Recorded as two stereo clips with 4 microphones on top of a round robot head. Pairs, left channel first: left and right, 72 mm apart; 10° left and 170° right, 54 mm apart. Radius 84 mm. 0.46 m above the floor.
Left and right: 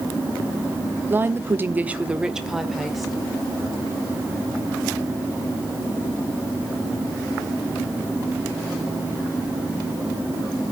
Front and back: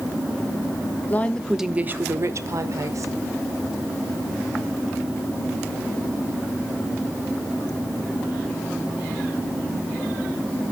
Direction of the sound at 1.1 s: 35° right.